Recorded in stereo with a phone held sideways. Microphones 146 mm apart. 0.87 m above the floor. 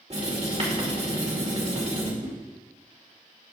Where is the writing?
45° right (ahead or behind), 2.5 m.